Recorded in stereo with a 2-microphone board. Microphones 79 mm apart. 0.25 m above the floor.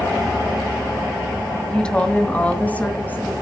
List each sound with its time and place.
1.7 s a woman speaking: 10° left (ahead or behind), 1.4 m; by 3.3 s 20° left (ahead or behind), 3 m